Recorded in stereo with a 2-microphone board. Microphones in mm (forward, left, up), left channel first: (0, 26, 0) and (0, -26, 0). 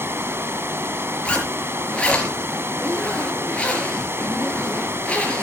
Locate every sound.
0.0 s running water: 50° right (ahead or behind), 1.3 m
1.2 s a zipper: 20° left (ahead or behind), 4.5 m